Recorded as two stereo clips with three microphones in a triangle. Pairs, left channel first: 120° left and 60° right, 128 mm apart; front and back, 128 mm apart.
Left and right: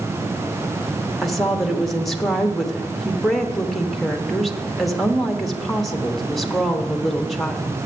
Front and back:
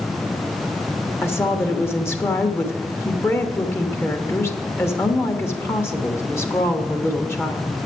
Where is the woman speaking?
30° left, 0.9 m.